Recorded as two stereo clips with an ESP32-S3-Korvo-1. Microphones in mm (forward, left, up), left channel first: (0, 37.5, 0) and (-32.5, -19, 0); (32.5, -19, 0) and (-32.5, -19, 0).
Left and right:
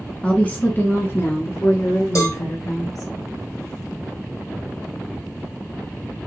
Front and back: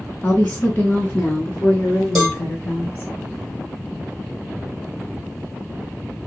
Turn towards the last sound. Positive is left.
turn(degrees=85)